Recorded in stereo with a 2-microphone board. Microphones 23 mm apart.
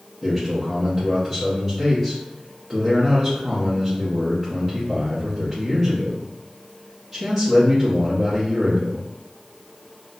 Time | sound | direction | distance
0.2 | a man speaking | centre (ahead or behind) | 0.8 m